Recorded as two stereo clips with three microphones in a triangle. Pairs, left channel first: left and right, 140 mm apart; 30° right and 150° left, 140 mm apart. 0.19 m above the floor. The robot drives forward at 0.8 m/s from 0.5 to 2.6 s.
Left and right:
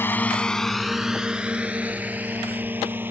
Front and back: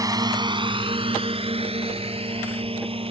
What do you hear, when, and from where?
0.0 s a drone: 140° left; by 3.1 s 165° right